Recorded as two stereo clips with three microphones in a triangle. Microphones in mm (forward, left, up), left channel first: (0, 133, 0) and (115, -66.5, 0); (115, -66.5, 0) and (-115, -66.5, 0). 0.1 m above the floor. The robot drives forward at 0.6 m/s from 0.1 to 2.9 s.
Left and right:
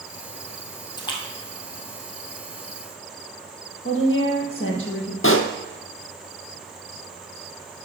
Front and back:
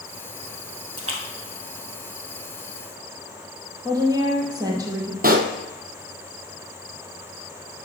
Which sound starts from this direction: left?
A woman speaking, at 3.9 s.